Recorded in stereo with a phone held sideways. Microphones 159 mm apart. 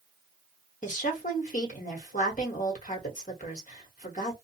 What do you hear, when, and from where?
0.8 s a woman speaking: 55° left (ahead or behind), 1.2 m